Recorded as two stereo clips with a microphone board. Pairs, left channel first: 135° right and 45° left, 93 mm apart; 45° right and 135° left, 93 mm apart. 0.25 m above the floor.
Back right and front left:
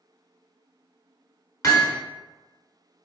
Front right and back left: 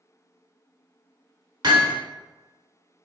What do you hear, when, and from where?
1.6 s hammering: 170° left, 1.2 m